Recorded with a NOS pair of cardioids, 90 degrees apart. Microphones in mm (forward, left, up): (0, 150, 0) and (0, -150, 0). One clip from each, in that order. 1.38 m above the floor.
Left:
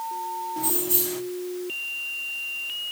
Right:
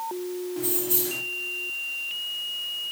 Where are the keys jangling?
5° left, 2 m.